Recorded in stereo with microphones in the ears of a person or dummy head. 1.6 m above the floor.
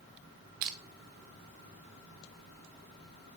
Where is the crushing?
35° right (ahead or behind), 0.5 m.